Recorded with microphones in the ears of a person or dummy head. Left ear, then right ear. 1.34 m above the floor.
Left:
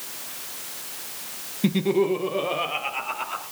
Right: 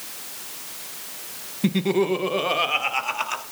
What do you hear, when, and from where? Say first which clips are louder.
1.6 s laughter: even; 5° right (ahead or behind), 0.9 m; by 3.4 s 55° right (ahead or behind), 3 m